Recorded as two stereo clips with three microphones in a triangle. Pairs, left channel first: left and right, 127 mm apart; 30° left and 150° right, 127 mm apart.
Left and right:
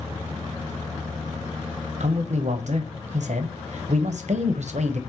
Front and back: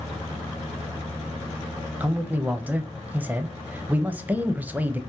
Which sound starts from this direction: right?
A man speaking, at 2.0 s.